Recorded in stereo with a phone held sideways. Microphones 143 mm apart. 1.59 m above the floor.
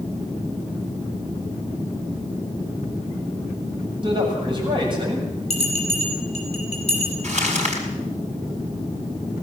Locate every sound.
4.0 s a man speaking: 35° right (ahead or behind), 7.5 m
5.5 s a bell: 50° left (ahead or behind), 7.5 m
7.2 s crumpling: 55° right (ahead or behind), 5.5 m